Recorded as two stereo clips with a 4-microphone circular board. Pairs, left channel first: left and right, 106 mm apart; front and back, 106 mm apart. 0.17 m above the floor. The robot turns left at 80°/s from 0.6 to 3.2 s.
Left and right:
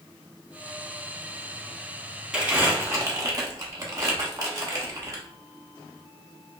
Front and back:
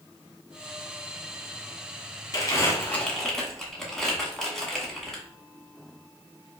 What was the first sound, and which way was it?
Crumpling, 15° right.